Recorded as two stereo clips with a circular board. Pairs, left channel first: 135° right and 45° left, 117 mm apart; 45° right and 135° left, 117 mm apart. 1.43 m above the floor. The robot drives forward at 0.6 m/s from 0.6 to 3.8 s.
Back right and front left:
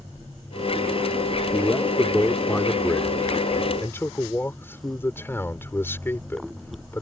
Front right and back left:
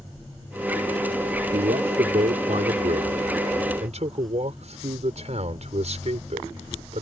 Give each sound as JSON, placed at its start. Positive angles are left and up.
{"t": 1.5, "sound": "a man speaking", "azimuth_deg": 145}